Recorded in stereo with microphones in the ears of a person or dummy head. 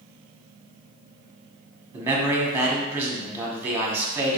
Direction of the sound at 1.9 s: 10° right (ahead or behind).